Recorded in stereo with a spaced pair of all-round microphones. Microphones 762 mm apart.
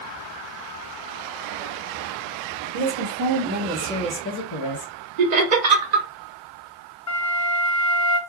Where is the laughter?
60° right (ahead or behind), 0.9 m.